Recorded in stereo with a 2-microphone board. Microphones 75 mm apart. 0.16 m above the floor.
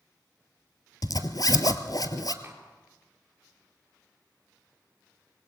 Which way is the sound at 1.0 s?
60° left (ahead or behind).